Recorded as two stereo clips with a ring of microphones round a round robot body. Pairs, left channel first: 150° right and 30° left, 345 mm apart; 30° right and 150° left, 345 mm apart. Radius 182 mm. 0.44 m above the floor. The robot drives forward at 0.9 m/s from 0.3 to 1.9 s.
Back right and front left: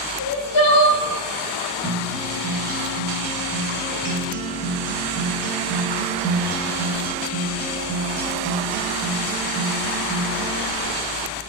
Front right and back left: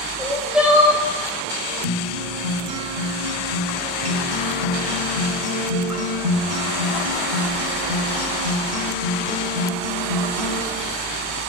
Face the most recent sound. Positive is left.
turn(degrees=100)